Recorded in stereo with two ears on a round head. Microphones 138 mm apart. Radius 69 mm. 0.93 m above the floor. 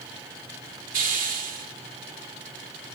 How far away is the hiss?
About 3 m.